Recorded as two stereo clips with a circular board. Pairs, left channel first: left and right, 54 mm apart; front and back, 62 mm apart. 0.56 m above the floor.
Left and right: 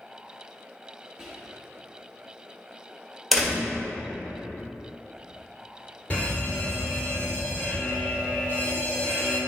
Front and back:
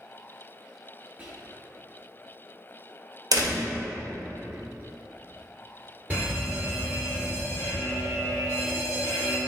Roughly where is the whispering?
Behind right.